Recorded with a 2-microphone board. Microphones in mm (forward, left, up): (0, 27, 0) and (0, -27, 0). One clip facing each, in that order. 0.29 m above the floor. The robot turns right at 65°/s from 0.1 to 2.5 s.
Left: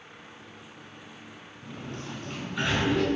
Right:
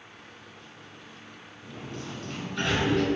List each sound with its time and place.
1.6 s a sliding door: 120° left, 3.5 m; by 3.1 s 175° left, 3.5 m